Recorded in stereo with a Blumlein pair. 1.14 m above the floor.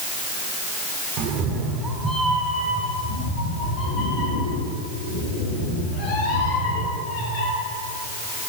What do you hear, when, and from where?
1.2 s a cat meowing: 40° right, 1.8 m; by 7.5 s 40° left, 9.5 m